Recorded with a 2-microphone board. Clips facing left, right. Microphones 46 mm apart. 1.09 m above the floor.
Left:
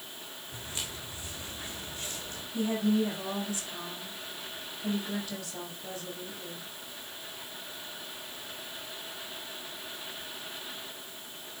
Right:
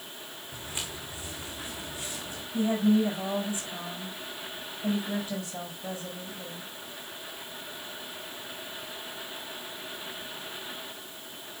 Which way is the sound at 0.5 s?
20° right (ahead or behind).